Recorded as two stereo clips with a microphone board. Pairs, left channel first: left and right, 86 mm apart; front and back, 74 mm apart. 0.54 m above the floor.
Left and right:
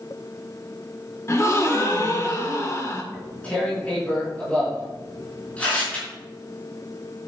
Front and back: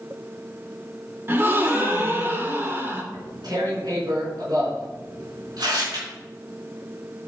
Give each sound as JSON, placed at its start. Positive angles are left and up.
{"t": 1.3, "sound": "a gasp", "azimuth_deg": 130, "distance_m": 1.4}
{"t": 3.1, "sound": "tearing paper", "azimuth_deg": 165, "distance_m": 5.0}